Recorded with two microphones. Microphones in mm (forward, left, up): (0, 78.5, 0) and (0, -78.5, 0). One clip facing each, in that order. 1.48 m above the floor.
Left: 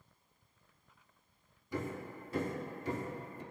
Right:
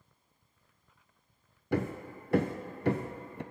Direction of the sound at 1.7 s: 65° right (ahead or behind).